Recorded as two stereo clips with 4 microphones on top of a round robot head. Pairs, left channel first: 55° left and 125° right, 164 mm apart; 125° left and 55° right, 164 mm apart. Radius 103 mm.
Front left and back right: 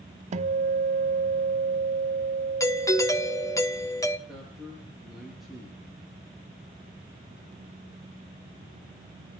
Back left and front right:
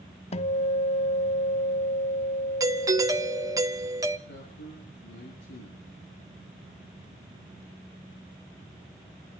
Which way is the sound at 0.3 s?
Straight behind.